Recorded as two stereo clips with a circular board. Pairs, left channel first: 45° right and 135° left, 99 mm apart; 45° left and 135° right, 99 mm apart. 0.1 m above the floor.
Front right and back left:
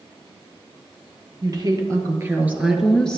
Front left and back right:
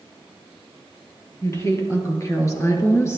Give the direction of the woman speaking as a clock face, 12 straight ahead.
9 o'clock.